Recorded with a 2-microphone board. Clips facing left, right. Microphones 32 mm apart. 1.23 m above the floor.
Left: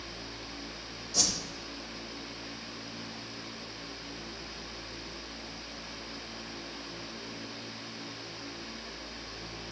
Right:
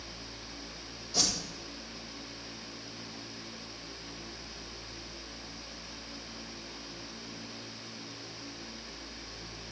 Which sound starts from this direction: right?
A whoosh, at 1.1 s.